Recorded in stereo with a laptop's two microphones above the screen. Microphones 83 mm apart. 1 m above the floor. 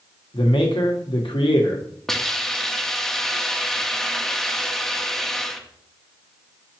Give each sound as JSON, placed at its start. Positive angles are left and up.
{"t": 0.3, "sound": "a man speaking", "side_deg": 80, "distance_m": 1.3}
{"t": 2.1, "sound": "a hiss", "side_deg": 5, "distance_m": 0.8}